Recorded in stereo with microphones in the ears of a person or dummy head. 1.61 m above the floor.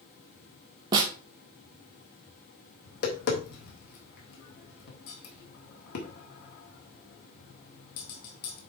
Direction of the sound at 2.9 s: 55° left (ahead or behind).